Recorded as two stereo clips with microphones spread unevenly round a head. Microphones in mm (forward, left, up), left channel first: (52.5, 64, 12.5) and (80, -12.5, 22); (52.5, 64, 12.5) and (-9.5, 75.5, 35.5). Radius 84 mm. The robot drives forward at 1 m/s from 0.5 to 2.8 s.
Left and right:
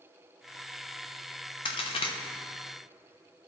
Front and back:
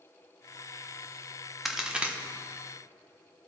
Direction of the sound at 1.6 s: 85° left.